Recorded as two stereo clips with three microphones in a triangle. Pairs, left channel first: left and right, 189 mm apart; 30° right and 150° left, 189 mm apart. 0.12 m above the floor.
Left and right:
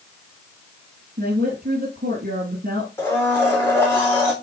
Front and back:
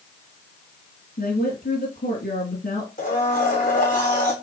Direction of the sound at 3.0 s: 10° left.